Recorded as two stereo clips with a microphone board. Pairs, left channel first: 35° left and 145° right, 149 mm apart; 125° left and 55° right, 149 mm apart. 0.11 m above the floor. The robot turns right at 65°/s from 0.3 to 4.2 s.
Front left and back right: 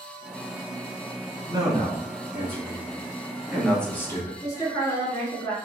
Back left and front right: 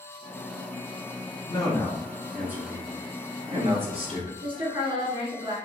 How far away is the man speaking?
About 1.3 m.